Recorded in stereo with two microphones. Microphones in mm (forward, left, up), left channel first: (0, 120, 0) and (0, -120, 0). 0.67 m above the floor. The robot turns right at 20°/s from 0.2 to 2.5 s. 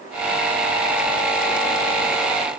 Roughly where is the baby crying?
I don't hear a baby crying.